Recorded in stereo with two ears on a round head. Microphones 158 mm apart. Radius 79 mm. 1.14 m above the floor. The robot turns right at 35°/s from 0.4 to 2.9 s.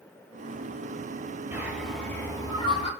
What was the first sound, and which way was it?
A bird, 15° right.